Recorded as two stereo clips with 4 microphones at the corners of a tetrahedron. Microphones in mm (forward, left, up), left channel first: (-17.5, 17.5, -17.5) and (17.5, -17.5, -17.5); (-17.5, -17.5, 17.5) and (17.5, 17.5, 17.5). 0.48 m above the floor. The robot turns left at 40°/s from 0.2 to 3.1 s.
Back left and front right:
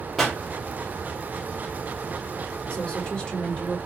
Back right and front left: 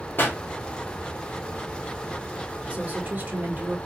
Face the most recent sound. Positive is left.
turn(degrees=75)